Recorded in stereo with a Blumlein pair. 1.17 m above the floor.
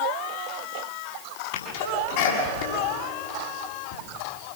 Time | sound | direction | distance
1.5 | a sneeze | 50° left | 7.5 m